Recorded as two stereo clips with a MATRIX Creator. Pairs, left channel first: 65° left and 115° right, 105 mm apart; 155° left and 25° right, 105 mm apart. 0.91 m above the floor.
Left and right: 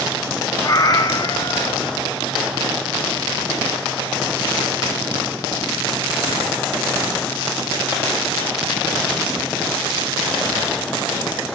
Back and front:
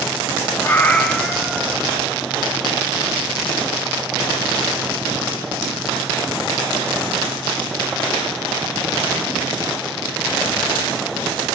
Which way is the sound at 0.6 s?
100° left.